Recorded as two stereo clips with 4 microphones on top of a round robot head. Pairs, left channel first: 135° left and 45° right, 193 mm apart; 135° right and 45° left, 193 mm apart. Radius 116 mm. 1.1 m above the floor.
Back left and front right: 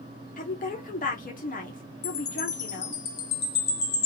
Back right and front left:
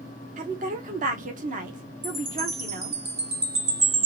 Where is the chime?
100° left, 1.6 m.